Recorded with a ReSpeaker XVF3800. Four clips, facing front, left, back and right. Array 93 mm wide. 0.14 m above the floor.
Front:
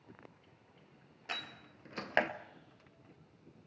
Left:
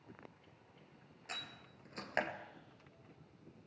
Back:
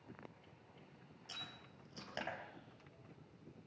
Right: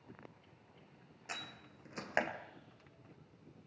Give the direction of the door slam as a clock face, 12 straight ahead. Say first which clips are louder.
Right 2 dB, front 10 dB; 1 o'clock.